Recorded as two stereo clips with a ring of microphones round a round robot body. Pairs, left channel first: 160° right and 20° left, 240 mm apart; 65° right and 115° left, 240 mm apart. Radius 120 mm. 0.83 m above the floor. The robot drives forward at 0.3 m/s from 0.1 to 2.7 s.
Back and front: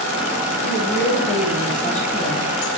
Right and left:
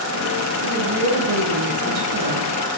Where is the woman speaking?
135° left, 5 m; by 2.5 s 140° left, 5.5 m.